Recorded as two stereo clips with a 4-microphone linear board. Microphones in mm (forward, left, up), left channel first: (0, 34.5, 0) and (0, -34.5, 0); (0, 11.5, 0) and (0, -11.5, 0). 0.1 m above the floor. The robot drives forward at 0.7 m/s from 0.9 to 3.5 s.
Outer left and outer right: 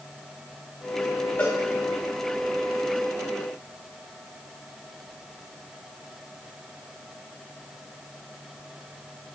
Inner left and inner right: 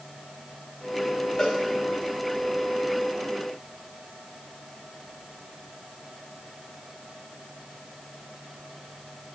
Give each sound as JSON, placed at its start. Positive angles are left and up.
{"t": 1.4, "sound": "a cowbell", "side_deg": 30, "distance_m": 1.6}